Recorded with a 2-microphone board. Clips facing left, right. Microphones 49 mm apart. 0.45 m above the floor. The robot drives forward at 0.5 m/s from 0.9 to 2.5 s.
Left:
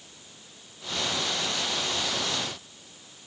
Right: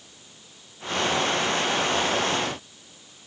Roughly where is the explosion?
No explosion in this recording.